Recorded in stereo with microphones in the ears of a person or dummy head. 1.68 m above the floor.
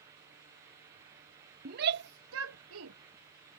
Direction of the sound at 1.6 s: 50° right (ahead or behind).